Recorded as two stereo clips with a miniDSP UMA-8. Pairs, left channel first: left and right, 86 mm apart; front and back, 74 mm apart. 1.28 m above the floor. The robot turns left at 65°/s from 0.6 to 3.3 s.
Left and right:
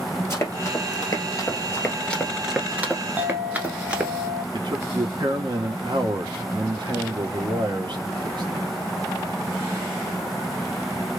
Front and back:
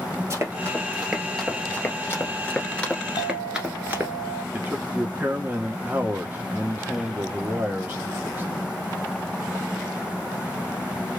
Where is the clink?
10° right, 1.1 m; by 4.4 s 20° right, 1.1 m.